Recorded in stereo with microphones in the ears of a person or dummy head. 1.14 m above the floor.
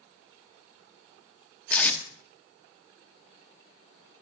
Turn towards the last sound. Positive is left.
turn(degrees=10)  # may be behind; listen again after turning